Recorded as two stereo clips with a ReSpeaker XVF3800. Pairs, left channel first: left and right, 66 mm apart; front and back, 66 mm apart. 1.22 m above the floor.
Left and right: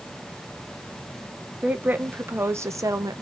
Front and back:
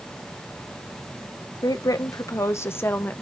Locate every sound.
1.6 s a woman speaking: 20° right, 1.4 m; by 3.2 s 65° right, 1.1 m